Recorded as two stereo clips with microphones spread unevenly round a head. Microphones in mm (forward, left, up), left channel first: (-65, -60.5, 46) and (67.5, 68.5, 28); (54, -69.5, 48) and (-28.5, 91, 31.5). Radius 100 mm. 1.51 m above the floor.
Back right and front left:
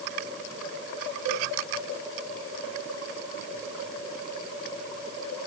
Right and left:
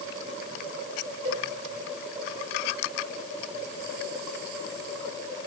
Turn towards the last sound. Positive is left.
turn(degrees=65)